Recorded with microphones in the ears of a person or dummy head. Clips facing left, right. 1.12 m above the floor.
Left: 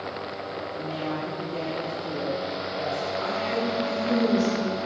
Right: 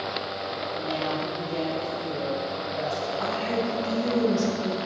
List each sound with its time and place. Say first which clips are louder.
0.7 s a woman speaking: right 2 dB; 60° right (ahead or behind), 4 m
3.2 s a woman speaking: right 1 dB; 60° right (ahead or behind), 3.5 m